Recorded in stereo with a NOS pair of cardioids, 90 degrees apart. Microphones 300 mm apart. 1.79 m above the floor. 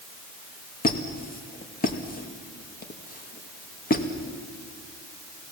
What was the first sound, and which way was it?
A squeak, 30° left.